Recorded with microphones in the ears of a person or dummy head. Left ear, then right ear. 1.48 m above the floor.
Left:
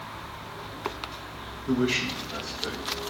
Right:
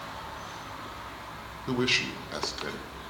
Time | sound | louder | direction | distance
1.7 | a man speaking | even | 55° right (ahead or behind) | 1.4 m